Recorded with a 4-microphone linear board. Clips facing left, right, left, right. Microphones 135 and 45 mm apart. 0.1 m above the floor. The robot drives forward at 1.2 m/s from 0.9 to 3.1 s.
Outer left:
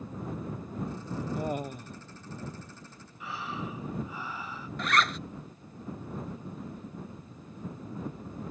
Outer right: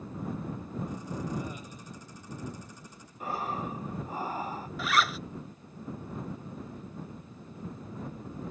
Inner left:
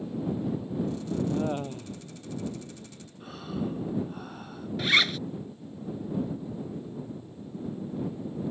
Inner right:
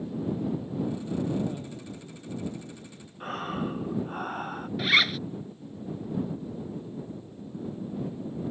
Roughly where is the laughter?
Left.